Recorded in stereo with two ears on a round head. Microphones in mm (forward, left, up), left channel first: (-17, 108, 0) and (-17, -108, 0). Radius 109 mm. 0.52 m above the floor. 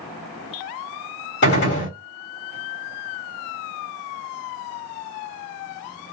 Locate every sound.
1.4 s a gunshot: 50° left (ahead or behind), 1.6 m